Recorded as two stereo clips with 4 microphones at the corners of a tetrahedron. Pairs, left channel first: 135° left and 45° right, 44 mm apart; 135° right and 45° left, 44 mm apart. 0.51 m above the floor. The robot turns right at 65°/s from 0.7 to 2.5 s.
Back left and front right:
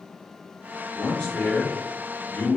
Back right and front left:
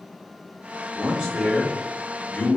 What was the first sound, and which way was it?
A man speaking, 75° left.